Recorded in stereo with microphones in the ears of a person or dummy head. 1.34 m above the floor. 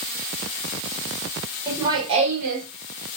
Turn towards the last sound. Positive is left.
turn(degrees=-55)  # may be behind; listen again after turning